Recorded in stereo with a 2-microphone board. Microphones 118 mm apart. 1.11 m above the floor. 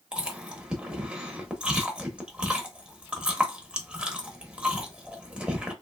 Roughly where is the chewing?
Centre.